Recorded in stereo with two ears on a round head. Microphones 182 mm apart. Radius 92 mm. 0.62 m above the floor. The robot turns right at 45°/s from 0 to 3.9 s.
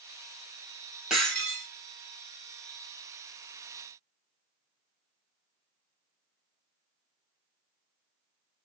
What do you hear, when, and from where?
1.1 s breaking glass: 5° right (ahead or behind), 2.5 m; by 1.7 s 20° left (ahead or behind), 2.5 m